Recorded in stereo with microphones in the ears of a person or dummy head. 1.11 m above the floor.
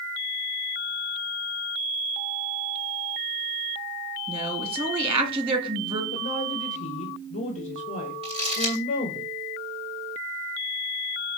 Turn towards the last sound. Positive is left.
turn(degrees=-25)  # may be behind; listen again after turning